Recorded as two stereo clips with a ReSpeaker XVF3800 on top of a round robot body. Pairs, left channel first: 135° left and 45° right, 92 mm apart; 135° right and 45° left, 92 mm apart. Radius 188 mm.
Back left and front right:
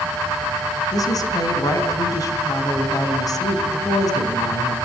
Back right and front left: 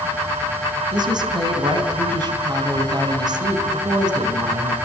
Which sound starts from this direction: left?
A woman speaking, at 0.9 s.